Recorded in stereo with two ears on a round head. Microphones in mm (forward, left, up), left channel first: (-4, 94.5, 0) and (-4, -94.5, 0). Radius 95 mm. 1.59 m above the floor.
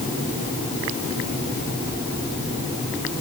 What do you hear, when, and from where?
Only background noise.